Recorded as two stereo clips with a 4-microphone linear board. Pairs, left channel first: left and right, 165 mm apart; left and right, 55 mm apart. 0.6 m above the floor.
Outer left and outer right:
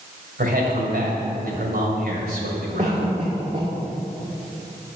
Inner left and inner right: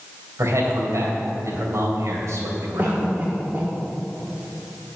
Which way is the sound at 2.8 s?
40° right (ahead or behind).